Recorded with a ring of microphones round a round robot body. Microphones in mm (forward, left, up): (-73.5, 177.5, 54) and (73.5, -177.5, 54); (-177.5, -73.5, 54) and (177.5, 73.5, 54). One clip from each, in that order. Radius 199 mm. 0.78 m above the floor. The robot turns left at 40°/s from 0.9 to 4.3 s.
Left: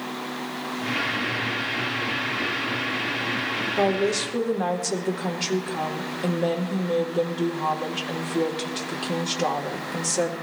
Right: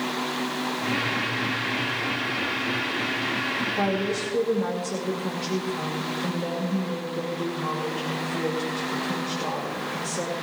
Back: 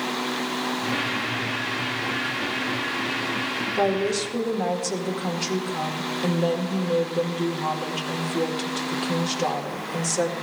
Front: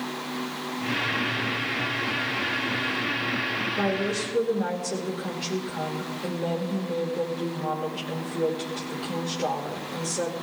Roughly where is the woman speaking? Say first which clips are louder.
Left 3 dB, back 3 dB; behind.